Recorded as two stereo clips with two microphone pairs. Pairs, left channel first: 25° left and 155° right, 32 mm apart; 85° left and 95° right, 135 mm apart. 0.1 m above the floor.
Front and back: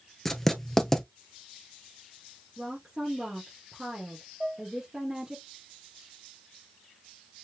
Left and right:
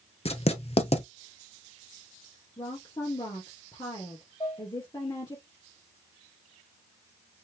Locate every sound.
0.2 s writing: 105° left, 1.0 m
2.6 s a woman speaking: 135° left, 1.9 m
4.4 s dishes clattering: 150° left, 2.5 m